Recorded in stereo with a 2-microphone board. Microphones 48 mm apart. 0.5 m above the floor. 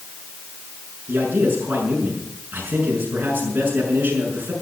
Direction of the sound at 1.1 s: 40° right (ahead or behind).